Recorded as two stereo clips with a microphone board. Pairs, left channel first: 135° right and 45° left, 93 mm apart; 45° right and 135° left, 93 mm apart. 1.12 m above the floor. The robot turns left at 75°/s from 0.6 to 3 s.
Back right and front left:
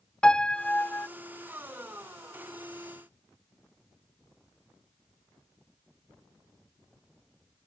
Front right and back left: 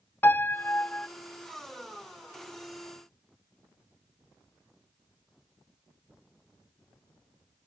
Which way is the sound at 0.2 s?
70° right.